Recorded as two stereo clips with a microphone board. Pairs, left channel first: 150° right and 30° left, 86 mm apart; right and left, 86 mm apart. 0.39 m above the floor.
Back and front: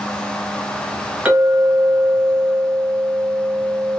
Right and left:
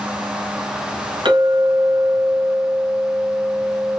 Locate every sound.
1.2 s a clink: 105° left, 2 m